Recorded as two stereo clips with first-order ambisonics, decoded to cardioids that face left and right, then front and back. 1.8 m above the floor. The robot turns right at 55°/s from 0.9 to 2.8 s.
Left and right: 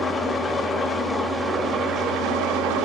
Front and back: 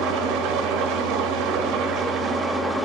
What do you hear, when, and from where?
0.0 s an engine running: 165° left, 0.9 m; by 2.9 s 90° right, 0.9 m